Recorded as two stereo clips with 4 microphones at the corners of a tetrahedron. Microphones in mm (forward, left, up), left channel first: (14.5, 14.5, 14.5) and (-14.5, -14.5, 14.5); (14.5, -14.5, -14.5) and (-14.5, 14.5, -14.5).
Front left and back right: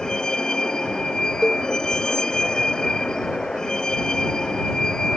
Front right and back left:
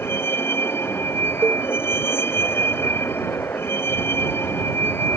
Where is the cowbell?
150° left.